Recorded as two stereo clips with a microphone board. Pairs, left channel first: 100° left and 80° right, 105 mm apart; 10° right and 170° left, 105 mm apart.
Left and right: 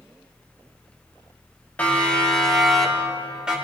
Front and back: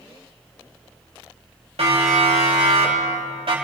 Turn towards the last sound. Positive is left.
turn(degrees=-160)